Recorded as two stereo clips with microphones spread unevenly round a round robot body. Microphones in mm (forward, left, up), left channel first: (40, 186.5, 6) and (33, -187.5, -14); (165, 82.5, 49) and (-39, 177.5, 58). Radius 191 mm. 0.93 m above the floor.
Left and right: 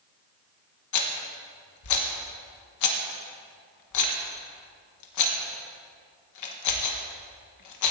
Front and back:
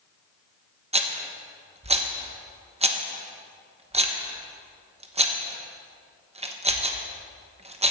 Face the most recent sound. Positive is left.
turn(degrees=100)